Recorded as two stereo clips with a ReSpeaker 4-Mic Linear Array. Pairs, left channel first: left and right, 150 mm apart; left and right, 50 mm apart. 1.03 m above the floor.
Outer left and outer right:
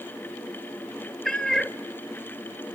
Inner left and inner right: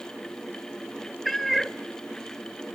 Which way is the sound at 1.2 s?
5° left (ahead or behind).